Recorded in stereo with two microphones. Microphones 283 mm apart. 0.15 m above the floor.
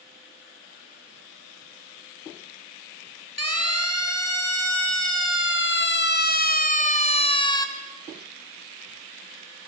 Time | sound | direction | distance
3.4 | a siren | 60° left (ahead or behind) | 4 m